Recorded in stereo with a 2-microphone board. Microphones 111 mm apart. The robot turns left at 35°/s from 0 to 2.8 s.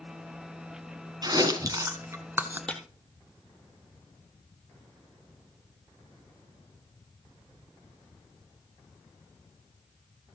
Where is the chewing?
40° right (ahead or behind), 1.7 m; by 2.6 s 15° right (ahead or behind), 1.7 m.